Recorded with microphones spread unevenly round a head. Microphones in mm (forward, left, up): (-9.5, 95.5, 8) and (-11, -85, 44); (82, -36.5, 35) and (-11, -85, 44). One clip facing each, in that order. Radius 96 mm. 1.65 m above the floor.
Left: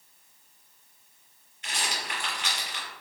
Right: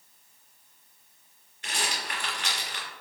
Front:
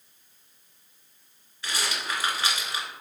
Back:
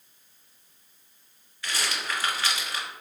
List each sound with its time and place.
1.6 s a rattle: 40° right, 1.7 m